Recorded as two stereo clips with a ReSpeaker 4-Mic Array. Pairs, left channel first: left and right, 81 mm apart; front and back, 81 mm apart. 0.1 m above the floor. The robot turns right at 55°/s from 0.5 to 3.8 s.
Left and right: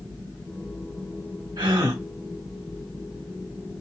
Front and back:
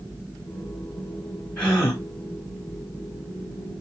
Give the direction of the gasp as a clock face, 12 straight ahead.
2 o'clock.